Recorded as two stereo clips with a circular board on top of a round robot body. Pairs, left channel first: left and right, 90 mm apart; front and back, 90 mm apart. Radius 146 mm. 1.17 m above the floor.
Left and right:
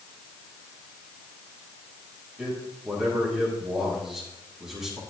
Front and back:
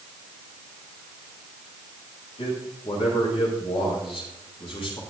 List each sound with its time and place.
2.4 s a man speaking: 5° right, 7.5 m